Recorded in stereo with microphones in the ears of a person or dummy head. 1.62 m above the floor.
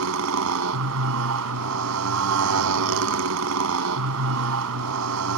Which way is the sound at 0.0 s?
70° right (ahead or behind).